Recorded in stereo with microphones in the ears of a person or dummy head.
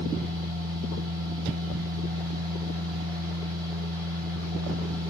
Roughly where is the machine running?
Centre.